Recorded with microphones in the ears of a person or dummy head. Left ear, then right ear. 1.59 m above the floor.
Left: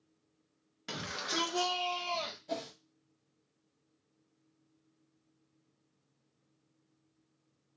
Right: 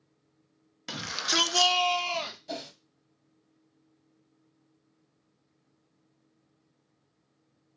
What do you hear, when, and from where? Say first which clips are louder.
0.9 s a shout: right 8 dB; 10° right (ahead or behind), 0.9 m; by 2.4 s 60° right (ahead or behind), 0.8 m
2.5 s a whoosh: right 1 dB; 30° right (ahead or behind), 1.4 m